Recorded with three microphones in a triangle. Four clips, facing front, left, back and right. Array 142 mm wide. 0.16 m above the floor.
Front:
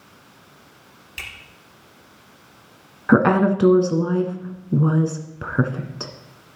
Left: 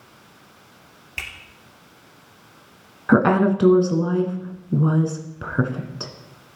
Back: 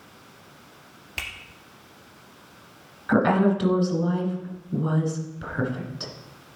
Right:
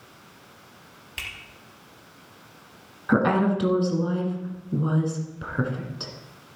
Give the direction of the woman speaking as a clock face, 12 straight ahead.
11 o'clock.